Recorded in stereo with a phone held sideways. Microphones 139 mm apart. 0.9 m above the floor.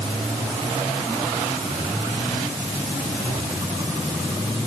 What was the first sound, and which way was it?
Only background noise.